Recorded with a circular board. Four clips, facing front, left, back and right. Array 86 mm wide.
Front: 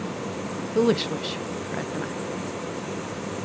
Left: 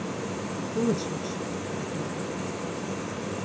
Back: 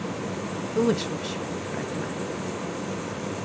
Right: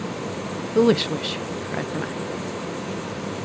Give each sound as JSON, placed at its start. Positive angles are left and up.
{"t": 0.8, "sound": "a woman speaking", "azimuth_deg": -75, "distance_m": 0.5}